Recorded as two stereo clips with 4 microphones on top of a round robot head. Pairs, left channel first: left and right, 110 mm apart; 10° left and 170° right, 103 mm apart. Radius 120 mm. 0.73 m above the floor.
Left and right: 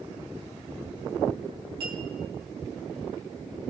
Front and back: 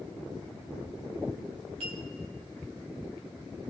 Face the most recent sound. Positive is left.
turn(degrees=-140)